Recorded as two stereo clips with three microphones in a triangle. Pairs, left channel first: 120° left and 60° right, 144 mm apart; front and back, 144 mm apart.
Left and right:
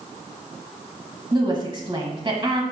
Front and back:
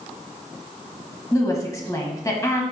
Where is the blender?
No blender in this recording.